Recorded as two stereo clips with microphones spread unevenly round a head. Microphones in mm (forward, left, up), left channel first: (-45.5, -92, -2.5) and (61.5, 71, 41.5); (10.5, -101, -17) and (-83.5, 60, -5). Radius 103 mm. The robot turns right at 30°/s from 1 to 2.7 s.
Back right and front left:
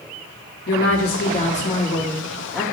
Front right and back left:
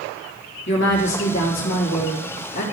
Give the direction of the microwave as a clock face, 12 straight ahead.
No microwave in this recording.